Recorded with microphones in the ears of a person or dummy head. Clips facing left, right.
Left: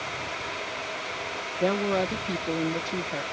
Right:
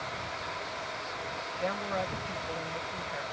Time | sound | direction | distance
1.6 | a woman speaking | 65° left (ahead or behind) | ?